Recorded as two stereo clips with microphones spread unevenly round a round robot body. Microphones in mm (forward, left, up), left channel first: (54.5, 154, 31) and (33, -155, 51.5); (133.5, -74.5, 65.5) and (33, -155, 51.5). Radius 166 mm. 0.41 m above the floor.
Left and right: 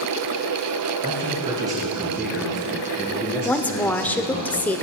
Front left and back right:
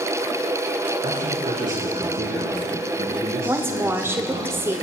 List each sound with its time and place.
1.0 s a man speaking: 165° right, 5 m; by 4.5 s 160° left, 5.5 m
3.5 s a woman speaking: 165° left, 0.9 m